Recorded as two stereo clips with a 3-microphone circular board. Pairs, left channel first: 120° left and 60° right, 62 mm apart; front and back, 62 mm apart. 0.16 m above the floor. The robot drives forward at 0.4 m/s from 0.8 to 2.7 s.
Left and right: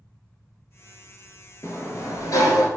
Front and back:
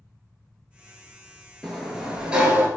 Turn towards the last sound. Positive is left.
turn(degrees=120)